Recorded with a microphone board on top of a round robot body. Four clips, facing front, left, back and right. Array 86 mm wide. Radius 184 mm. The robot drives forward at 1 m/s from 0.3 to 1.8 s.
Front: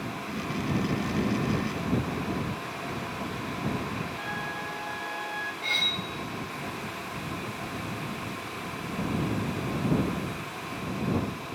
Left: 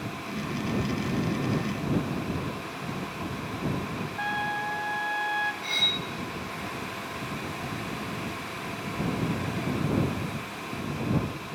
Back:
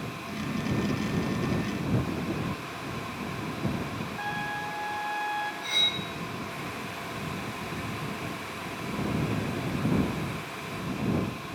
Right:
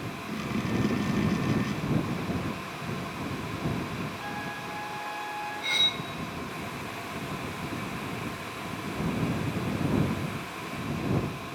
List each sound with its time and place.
4.2 s a trumpet: 105° left, 0.8 m
5.6 s cutlery clinking: 50° right, 2.5 m